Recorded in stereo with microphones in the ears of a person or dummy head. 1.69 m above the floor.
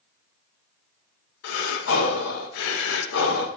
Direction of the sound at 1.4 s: 70° left (ahead or behind).